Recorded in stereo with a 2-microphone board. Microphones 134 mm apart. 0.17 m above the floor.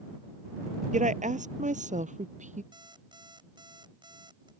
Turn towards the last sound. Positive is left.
turn(degrees=-35)  # may be behind; listen again after turning